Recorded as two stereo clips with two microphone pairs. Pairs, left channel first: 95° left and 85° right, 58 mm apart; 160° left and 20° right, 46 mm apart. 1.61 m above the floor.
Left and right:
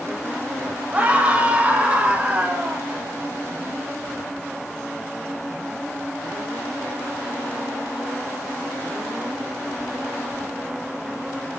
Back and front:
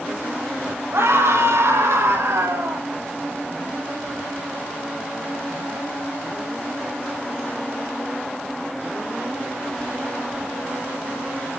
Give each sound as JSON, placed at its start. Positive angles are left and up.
{"t": 0.9, "sound": "a scream", "azimuth_deg": -20, "distance_m": 10.0}